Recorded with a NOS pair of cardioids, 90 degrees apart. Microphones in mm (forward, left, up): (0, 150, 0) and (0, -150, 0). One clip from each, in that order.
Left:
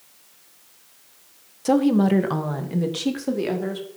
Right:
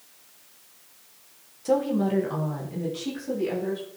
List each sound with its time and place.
1.6 s a woman speaking: 40° left, 1.2 m; by 3.9 s 75° left, 3 m